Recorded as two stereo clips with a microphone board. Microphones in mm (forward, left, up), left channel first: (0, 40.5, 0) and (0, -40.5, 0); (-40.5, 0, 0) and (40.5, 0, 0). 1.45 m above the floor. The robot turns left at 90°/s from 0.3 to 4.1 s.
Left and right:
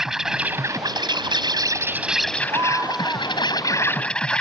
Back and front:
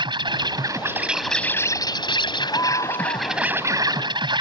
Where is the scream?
130° right; by 3.5 s 135° left.